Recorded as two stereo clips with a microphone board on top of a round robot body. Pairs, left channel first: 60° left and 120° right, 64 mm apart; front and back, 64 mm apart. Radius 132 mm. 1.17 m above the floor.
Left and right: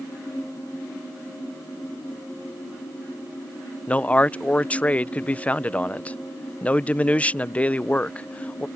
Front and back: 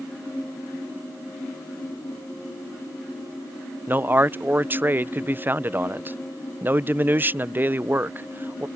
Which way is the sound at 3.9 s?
125° left.